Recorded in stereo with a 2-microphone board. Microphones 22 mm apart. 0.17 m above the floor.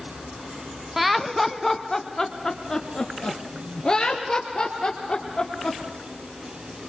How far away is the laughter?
About 1.0 m.